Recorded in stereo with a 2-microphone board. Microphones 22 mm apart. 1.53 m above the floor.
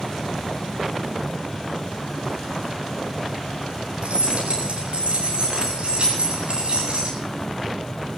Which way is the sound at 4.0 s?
65° right (ahead or behind).